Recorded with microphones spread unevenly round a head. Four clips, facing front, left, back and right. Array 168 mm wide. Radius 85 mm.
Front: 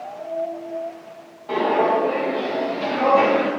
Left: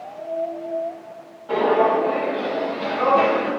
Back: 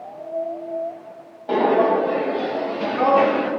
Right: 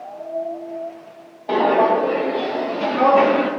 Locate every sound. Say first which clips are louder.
1.5 s footsteps: right 2 dB, back 2 dB; 130° right, 3 m; by 3.5 s 75° right, 2 m